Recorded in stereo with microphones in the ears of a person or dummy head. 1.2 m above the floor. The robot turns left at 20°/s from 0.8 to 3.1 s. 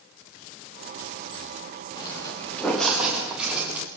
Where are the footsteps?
25° left (ahead or behind), 7 m; by 3.9 s 10° right (ahead or behind), 7 m.